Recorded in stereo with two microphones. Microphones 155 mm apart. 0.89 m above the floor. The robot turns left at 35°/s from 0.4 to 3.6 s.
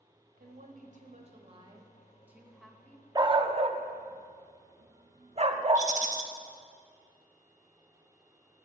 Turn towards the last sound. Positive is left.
turn(degrees=-55)  # may be behind; listen again after turning